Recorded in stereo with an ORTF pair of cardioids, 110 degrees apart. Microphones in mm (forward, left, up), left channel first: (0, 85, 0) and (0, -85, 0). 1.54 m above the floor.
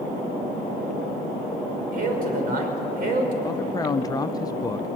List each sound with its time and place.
1.9 s a man speaking: 55° right, 6 m
3.4 s a man speaking: 20° left, 1.0 m